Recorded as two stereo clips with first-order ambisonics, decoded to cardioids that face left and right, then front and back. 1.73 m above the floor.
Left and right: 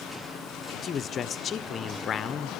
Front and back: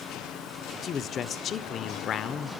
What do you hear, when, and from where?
0.8 s a man speaking: 45° left, 0.7 m